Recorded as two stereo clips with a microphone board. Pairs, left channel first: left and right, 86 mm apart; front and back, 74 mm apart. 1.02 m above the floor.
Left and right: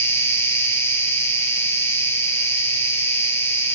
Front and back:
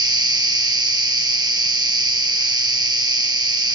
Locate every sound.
0.0 s an insect: 155° left, 1.0 m